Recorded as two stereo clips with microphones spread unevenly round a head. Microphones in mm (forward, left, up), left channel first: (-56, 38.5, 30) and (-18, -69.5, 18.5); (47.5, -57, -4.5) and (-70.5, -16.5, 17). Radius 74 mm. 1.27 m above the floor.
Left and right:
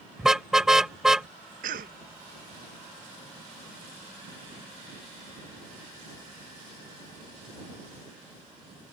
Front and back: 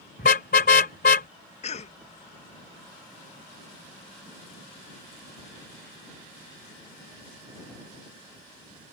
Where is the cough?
55° right.